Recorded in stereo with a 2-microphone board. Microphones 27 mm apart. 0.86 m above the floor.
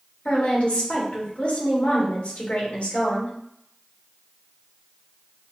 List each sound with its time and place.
0.2 s a woman speaking: 55° left (ahead or behind), 1.8 m